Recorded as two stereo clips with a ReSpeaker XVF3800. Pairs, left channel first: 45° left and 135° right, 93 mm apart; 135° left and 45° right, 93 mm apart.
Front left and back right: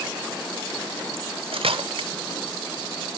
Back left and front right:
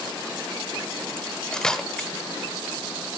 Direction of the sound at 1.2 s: 140° right.